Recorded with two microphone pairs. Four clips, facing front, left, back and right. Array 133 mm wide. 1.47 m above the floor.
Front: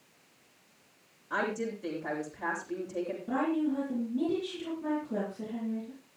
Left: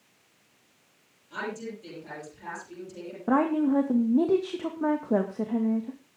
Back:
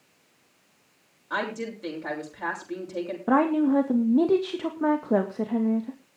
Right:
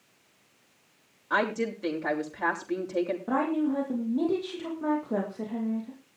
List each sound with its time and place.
1.3 s a woman speaking: 110° right, 6.5 m
3.3 s a woman speaking: 155° left, 2.0 m